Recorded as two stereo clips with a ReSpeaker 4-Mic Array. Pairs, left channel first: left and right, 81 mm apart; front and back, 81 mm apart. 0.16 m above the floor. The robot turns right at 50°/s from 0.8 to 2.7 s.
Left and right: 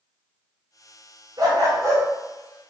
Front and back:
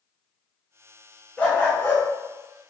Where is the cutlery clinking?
I don't hear cutlery clinking.